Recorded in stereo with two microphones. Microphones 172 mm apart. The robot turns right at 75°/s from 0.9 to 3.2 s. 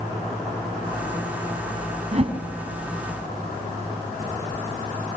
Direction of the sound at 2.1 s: 45° right (ahead or behind).